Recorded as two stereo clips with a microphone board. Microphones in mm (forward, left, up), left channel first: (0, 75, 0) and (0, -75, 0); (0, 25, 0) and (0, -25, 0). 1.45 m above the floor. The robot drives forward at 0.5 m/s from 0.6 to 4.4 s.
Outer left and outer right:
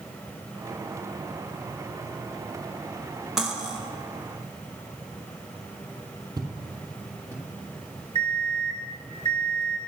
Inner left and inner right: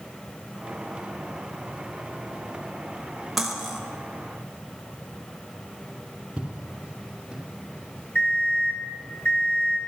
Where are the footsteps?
20° right (ahead or behind), 2.0 m; by 7.4 s 15° right (ahead or behind), 2.5 m.